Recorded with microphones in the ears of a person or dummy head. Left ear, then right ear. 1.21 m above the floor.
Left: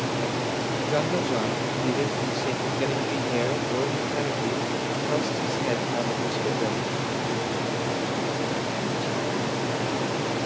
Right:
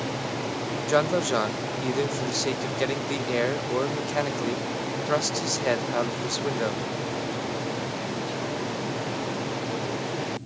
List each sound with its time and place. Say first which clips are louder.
0.9 s a man speaking: right 4 dB; 50° right (ahead or behind)